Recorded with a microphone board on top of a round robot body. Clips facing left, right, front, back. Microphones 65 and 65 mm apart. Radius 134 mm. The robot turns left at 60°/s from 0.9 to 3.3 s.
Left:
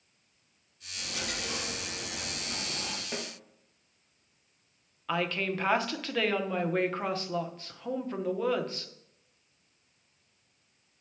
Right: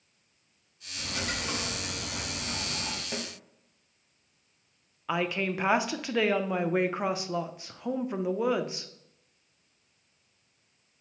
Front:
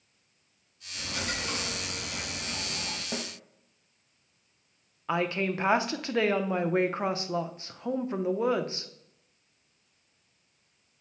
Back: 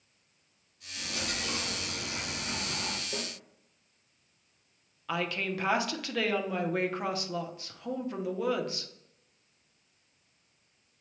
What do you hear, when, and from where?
0.9 s a dropped coin: 25° right, 1.6 m; by 3.0 s 150° right, 1.6 m
3.1 s a snare drum: 5° right, 1.0 m; by 3.3 s 15° right, 1.0 m
5.1 s a woman speaking: 25° right, 0.8 m